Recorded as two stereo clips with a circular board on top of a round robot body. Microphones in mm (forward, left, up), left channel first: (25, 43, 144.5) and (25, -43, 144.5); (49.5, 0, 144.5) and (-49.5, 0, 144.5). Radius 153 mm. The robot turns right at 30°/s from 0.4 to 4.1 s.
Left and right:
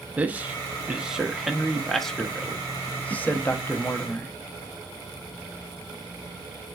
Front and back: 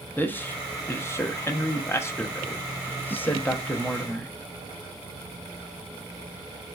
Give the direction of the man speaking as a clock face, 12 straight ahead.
1 o'clock.